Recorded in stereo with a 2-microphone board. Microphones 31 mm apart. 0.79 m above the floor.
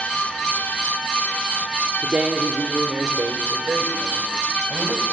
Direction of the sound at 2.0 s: 40° right (ahead or behind).